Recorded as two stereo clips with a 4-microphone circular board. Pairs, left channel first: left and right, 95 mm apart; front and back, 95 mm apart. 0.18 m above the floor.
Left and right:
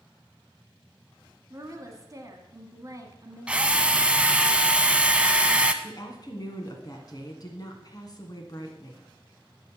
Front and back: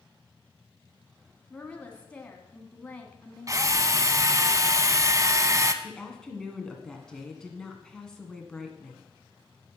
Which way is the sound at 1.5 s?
70° right.